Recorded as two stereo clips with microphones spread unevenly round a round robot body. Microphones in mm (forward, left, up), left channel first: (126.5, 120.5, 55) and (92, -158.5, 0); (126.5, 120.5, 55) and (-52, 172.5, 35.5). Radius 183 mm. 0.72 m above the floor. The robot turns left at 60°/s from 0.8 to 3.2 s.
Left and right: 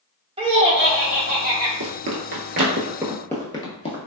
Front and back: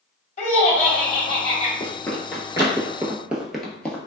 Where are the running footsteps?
65° right, 0.9 m; by 4.1 s 55° left, 0.9 m.